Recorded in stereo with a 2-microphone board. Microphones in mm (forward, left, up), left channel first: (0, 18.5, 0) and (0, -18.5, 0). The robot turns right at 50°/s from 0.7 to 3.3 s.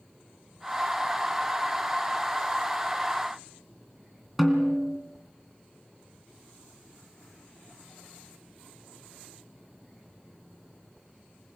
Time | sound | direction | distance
4.4 | a snare drum | centre (ahead or behind) | 2.5 m